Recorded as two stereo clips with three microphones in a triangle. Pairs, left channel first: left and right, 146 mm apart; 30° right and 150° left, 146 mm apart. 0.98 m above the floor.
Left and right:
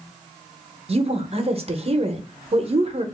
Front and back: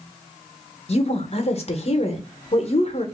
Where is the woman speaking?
60° right, 0.7 m.